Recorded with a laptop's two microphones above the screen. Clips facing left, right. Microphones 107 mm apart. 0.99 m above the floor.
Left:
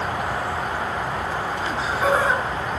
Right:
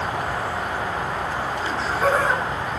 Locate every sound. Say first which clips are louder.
1.6 s laughter: right 1 dB; 10° left (ahead or behind), 8 m